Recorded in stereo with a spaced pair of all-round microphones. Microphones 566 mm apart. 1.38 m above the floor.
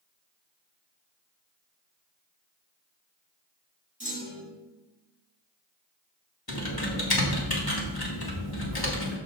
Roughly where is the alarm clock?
No alarm clock in this recording.